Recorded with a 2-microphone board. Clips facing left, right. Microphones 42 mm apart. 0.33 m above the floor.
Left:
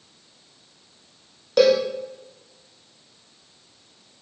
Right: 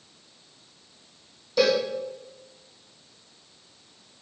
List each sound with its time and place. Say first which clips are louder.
1.6 s a cowbell: left 5 dB; 55° left (ahead or behind), 2 m